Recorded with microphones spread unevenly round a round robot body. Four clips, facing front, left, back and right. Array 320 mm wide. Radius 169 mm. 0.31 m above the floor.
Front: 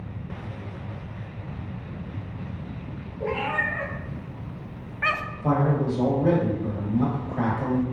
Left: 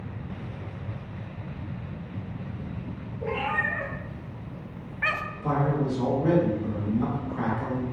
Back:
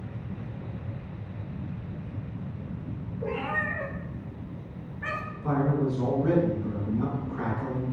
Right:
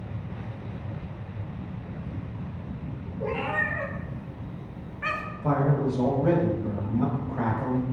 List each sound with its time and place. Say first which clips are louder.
3.2 s a cat meowing: even, front 4 dB; 30° right, 2.0 m; by 5.2 s 35° left, 0.5 m
5.4 s a man speaking: right 1 dB, front 3 dB; 20° right, 2.0 m